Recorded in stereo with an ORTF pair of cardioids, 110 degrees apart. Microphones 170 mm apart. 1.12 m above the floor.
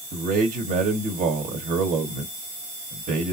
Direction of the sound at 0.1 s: 45° right.